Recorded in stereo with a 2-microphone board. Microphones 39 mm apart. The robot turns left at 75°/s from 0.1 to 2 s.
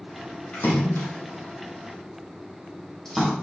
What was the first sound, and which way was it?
A splash, 60° left (ahead or behind).